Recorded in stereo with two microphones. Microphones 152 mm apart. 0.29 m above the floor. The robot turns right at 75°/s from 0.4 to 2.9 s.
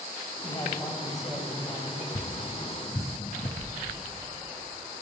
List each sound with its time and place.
0.4 s a man speaking: 125° left, 1.5 m; by 2.0 s 115° right, 1.5 m
2.1 s tapping: 70° left (ahead or behind), 0.9 m; by 3.5 s 45° left (ahead or behind), 0.9 m
3.6 s a sliding door: 70° right (ahead or behind), 3.5 m